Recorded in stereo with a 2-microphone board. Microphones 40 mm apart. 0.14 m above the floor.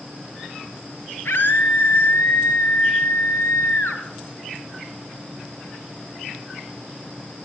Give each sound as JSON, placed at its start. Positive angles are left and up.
{"t": 1.2, "sound": "a scream", "side_deg": 55, "distance_m": 3.0}